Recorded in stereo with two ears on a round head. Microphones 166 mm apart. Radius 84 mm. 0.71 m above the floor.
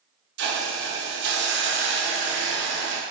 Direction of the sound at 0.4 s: 70° right (ahead or behind).